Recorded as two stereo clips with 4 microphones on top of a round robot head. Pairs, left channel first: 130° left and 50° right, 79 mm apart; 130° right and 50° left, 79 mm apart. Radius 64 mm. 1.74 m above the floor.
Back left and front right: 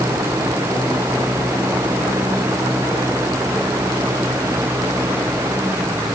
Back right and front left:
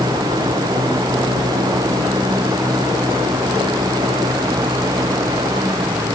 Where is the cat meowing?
No cat meowing in this recording.